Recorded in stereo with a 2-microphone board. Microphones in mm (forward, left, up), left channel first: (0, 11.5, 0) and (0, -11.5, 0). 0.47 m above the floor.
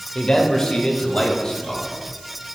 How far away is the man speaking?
About 1.5 m.